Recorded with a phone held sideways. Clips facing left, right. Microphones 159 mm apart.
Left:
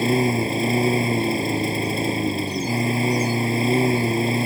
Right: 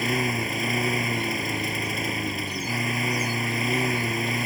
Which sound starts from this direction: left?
A lawn mower, at 0.0 s.